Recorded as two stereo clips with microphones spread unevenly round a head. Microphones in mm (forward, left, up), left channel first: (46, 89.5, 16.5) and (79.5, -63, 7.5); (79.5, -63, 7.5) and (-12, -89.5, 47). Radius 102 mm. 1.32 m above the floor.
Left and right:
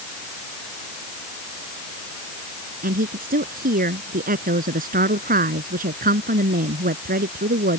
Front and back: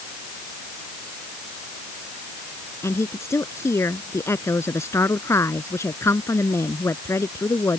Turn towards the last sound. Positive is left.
turn(degrees=-45)